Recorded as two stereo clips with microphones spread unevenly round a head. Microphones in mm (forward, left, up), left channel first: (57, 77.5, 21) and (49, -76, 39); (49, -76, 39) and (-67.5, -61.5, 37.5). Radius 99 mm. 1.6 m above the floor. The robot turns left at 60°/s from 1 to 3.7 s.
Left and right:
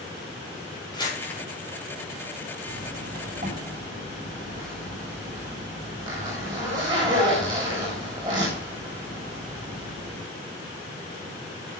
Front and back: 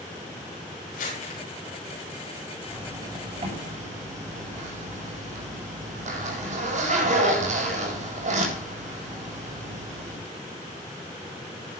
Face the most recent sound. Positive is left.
turn(degrees=-160)